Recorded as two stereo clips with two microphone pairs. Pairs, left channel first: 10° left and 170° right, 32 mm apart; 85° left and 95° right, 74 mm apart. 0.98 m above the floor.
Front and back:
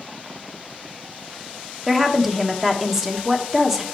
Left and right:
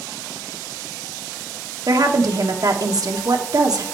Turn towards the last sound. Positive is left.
turn(degrees=-95)